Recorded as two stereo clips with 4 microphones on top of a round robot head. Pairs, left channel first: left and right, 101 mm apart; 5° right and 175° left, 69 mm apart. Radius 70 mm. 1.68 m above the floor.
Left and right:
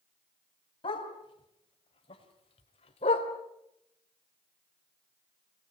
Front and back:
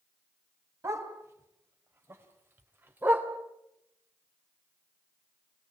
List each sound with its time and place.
0.8 s a dog barking: 125° left, 4.5 m; by 3.3 s 110° left, 2.5 m